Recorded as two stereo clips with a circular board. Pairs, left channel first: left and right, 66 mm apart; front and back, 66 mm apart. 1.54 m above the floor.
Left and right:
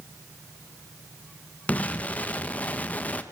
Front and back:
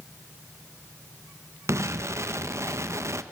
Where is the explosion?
150° left, 1.0 m.